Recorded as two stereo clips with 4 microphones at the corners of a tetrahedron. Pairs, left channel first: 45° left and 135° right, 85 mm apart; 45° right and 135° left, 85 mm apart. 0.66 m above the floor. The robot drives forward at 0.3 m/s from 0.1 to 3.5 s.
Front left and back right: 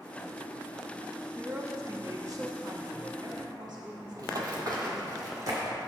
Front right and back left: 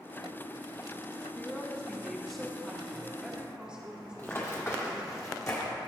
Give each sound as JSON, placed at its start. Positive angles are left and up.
{"t": 1.4, "sound": "a woman speaking", "azimuth_deg": -95, "distance_m": 0.7}
{"t": 4.2, "sound": "running footsteps", "azimuth_deg": -105, "distance_m": 1.3}